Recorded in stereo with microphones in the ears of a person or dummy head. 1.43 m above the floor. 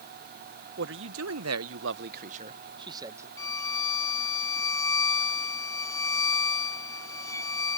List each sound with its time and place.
0.8 s a man speaking: 55° right (ahead or behind); by 3.3 s 20° right (ahead or behind)
3.4 s a violin: 15° left (ahead or behind)